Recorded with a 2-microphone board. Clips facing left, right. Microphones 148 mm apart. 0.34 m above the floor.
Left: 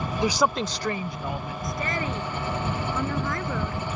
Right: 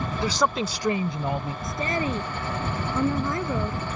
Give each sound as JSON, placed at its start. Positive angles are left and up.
{"t": 0.2, "sound": "a woman speaking", "side_deg": 20}
{"t": 1.6, "sound": "a woman speaking", "side_deg": -25}